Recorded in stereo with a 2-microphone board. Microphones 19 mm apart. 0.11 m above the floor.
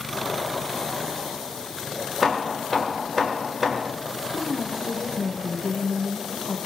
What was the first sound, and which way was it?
Hammering, 5° right (ahead or behind).